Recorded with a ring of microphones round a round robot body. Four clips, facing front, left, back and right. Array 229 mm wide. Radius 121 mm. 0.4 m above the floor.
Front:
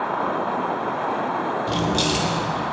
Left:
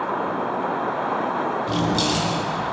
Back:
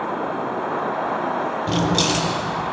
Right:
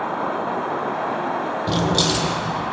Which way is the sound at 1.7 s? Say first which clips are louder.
Right 4 dB, back 4 dB; 125° right.